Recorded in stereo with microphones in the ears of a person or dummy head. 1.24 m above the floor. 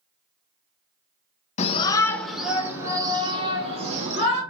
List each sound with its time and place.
1.6 s a shout: 40° left (ahead or behind), 0.9 m; by 4.4 s 35° right (ahead or behind), 2.5 m